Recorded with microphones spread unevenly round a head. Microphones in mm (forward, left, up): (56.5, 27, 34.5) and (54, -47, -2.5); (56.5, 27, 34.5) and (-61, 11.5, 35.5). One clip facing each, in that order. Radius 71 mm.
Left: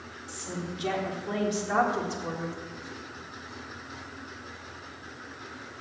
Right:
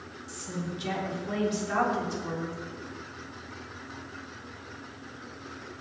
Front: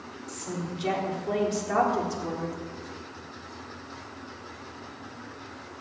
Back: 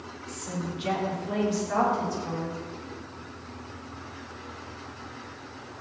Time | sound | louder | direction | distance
0.3 | a woman speaking | even, even | 60° left | 4 m